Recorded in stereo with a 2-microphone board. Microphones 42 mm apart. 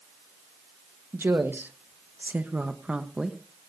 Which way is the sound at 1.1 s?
70° right (ahead or behind).